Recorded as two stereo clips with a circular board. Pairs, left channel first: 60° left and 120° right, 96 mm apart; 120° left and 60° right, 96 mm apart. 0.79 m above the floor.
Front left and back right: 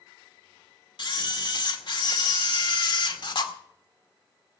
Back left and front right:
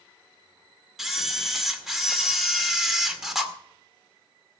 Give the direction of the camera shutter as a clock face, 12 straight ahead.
11 o'clock.